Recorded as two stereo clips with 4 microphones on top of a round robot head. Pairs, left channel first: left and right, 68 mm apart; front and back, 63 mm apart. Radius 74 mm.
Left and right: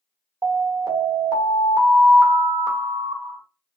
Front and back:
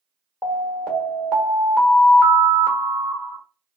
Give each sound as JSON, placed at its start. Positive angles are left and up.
{"t": 0.4, "sound": "an alarm", "azimuth_deg": -75, "distance_m": 1.3}